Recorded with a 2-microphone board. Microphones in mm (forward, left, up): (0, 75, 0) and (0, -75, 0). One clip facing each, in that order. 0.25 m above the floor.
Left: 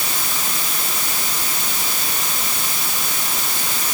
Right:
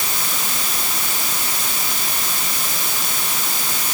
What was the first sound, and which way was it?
Only background noise.